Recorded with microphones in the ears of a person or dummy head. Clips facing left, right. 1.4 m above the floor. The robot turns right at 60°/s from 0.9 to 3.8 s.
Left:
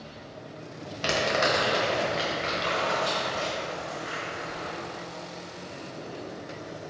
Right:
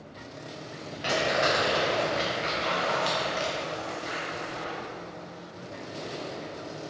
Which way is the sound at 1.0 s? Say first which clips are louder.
Even; 50° left (ahead or behind).